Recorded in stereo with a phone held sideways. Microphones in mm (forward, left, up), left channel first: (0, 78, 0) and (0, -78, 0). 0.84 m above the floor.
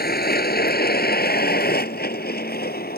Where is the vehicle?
85° left; by 3.0 s 80° left.